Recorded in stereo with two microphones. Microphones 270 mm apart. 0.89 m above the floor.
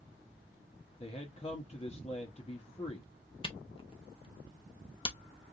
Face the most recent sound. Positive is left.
turn(degrees=20)  # may be behind; listen again after turning